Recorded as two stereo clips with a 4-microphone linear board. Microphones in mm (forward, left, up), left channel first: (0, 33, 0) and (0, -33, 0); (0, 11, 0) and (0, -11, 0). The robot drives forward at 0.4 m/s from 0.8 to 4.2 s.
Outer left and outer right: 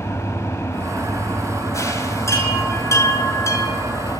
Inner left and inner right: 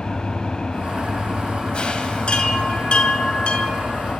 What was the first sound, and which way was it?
An engine running, 40° left (ahead or behind).